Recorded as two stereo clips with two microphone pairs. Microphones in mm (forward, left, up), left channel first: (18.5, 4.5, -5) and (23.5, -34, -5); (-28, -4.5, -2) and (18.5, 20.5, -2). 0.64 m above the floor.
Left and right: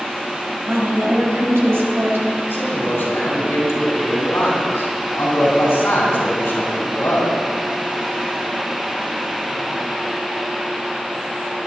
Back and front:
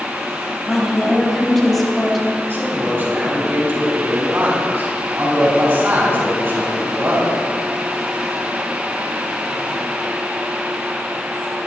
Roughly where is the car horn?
I don't hear a car horn.